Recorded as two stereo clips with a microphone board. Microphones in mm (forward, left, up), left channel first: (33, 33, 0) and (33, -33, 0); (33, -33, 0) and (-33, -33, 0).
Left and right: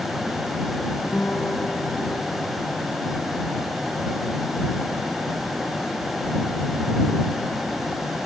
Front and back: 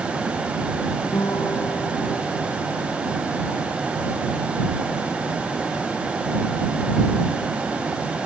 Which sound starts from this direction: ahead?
A guitar, at 1.1 s.